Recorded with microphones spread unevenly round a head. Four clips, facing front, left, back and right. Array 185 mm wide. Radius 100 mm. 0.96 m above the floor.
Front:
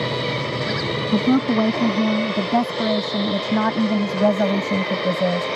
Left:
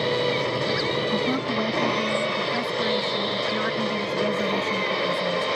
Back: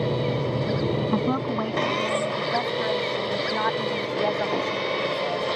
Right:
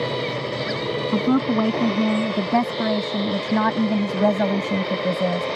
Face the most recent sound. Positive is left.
turn(degrees=-35)